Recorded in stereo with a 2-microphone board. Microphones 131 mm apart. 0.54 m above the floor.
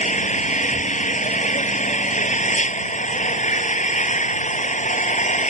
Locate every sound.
0.0 s an engine running: 70° left (ahead or behind)